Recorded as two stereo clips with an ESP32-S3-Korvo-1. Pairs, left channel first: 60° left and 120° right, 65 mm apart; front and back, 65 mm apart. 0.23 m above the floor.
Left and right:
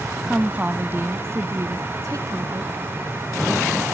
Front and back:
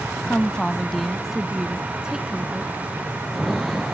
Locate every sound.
0.2 s a woman speaking: 55° right; by 2.7 s 105° right